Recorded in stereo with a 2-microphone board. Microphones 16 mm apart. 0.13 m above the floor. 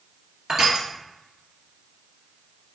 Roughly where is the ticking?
I don't hear ticking.